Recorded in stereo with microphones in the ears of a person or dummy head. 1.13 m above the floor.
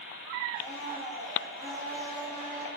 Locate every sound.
0.6 s a blender: 10° left (ahead or behind), 2.5 m